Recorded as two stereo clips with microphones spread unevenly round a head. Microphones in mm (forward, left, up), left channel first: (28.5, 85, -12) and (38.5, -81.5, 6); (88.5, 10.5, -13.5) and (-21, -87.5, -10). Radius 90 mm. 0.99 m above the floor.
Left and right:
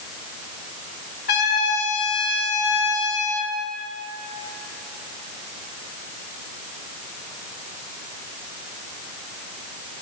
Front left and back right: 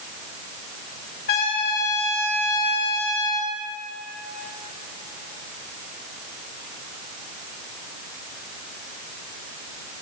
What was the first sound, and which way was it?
A trumpet, 70° left.